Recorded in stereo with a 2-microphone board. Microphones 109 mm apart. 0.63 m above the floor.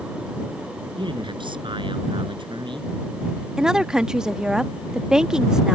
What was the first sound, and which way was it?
A man speaking, 50° right (ahead or behind).